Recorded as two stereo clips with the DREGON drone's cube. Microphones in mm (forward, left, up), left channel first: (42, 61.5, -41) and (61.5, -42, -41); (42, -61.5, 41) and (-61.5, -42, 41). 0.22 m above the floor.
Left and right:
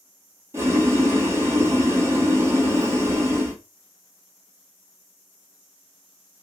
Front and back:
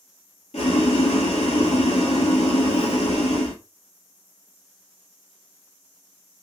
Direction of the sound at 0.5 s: 15° right.